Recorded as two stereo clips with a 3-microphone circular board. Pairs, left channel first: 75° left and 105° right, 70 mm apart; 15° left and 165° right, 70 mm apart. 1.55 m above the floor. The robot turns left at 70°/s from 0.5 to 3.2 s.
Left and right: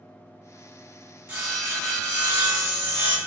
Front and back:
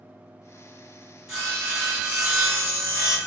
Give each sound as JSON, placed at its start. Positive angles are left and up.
{"t": 1.3, "sound": "sawing", "azimuth_deg": -85, "distance_m": 1.5}